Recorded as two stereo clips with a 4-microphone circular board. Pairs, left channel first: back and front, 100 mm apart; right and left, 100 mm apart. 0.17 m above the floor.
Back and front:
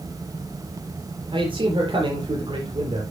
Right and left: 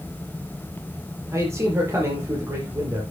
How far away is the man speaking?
About 5.5 m.